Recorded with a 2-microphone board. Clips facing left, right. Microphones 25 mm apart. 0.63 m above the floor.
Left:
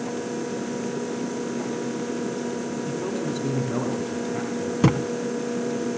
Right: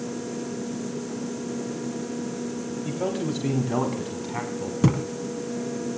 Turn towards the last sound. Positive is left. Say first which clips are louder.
# left 2 dB
turn(degrees=25)  # may be behind; listen again after turning